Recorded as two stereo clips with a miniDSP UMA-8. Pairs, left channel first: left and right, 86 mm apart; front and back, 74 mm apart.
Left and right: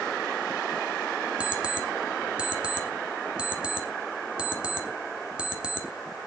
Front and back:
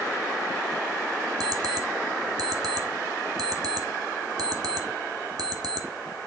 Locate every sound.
1.4 s an alarm clock: 165° right, 1.4 m